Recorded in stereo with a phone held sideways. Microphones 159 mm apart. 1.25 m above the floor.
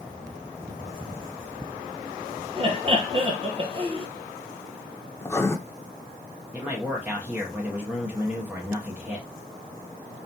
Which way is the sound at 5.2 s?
20° left (ahead or behind).